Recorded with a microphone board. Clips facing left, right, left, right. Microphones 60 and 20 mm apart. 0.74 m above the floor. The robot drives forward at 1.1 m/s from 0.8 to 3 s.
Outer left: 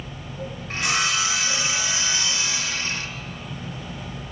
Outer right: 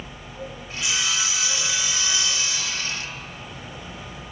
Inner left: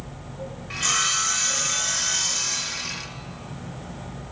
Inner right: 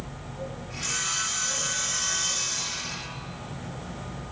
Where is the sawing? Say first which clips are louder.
Outer left 4 dB, inner left 7 dB; 60° left (ahead or behind), 3.5 m; by 3.0 s 35° left (ahead or behind), 5 m.